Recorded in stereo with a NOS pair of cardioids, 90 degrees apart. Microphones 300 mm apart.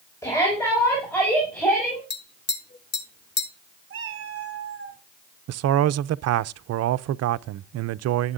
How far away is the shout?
About 6 m.